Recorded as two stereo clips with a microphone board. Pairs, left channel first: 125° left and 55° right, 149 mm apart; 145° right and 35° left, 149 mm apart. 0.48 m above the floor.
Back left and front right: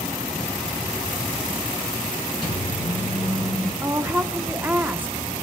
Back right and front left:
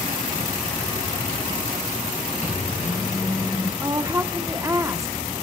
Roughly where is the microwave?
Behind.